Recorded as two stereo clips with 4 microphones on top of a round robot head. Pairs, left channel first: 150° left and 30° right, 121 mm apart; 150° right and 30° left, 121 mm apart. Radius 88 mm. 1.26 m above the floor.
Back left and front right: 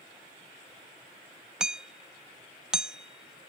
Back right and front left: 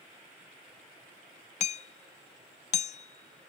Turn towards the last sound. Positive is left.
turn(degrees=-115)